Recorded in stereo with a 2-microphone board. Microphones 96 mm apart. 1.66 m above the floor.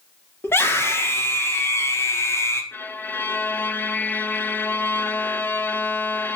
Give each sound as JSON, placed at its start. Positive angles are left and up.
{"t": 0.4, "sound": "a scream", "side_deg": 25, "distance_m": 4.0}
{"t": 2.7, "sound": "a violin", "side_deg": 20, "distance_m": 1.3}